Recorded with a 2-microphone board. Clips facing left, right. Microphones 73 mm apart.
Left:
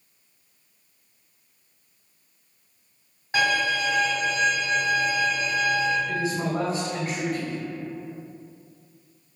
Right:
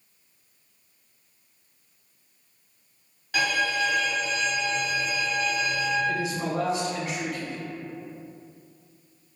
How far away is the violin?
About 1.3 m.